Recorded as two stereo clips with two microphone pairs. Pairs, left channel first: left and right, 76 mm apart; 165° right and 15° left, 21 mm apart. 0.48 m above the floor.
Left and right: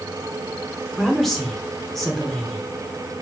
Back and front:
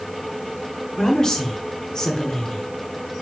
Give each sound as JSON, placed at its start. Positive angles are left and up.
{"t": 1.0, "sound": "a woman speaking", "azimuth_deg": 175, "distance_m": 1.0}